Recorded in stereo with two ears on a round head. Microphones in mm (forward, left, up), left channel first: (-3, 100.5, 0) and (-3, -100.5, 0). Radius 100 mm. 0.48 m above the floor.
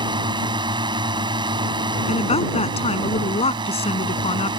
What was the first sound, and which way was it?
A drone, 20° right (ahead or behind).